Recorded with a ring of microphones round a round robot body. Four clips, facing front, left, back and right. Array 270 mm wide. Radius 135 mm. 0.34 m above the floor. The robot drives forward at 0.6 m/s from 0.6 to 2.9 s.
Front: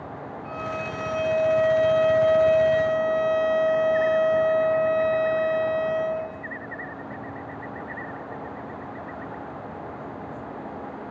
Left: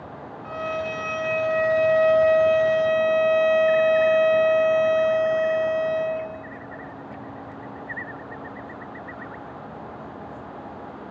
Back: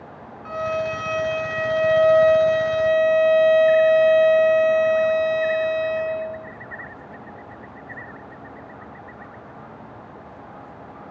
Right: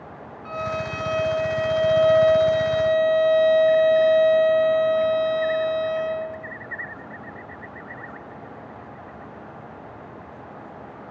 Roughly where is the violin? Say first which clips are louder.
Even, back 8 dB; behind.